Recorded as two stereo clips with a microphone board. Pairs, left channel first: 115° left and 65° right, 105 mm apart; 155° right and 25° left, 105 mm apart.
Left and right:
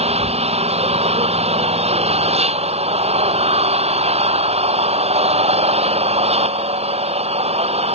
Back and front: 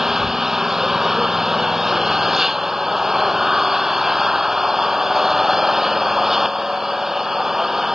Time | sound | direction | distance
0.0 | an engine running | 65° right | ?